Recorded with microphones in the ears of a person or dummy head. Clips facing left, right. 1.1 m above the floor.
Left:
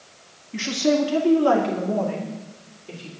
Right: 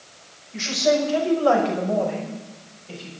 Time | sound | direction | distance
0.5 | a woman speaking | 65° left (ahead or behind) | 1.8 m